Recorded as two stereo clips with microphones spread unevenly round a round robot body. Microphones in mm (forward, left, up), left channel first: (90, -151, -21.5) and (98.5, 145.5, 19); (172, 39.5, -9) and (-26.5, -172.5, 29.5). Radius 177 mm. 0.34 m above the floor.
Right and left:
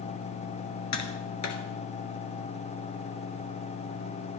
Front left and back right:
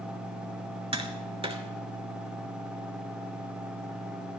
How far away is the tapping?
About 2 m.